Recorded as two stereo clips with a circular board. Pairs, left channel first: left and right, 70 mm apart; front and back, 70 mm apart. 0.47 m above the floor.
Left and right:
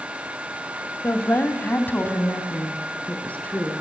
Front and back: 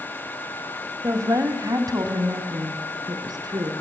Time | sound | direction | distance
1.0 | a woman speaking | 140° left | 2.0 m